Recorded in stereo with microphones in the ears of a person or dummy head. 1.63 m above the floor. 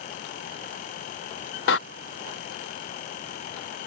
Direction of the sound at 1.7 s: 75° left (ahead or behind).